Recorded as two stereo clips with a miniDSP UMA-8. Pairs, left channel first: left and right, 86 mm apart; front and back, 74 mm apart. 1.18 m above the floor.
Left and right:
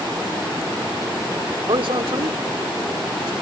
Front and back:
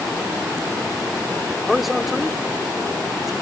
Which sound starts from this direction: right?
A man speaking, at 1.7 s.